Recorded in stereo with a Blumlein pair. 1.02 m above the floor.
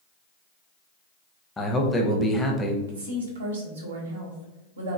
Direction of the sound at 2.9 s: 65° right.